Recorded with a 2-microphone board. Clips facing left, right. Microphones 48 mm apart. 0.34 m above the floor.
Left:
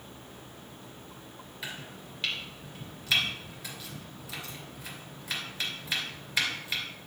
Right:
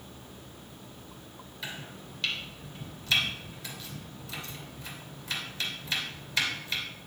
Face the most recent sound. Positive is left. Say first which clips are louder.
# even
turn(degrees=15)  # may be behind; listen again after turning